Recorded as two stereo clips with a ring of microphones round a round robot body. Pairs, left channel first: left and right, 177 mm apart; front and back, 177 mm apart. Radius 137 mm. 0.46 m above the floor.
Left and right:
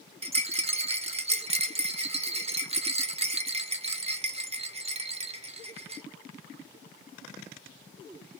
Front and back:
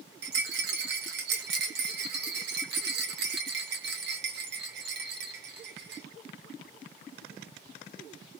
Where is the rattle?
150° right, 0.7 m.